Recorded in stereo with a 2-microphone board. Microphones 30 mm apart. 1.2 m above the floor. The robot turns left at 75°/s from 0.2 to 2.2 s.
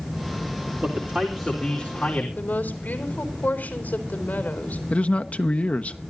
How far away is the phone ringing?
No phone ringing in this recording.